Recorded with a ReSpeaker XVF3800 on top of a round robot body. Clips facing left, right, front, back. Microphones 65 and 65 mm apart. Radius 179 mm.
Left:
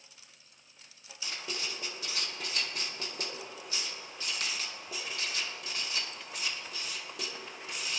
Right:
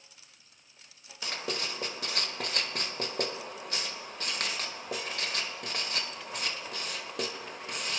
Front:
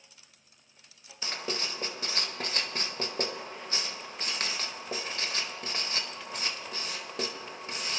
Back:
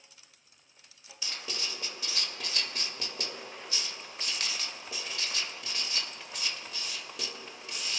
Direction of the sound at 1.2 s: 50° right.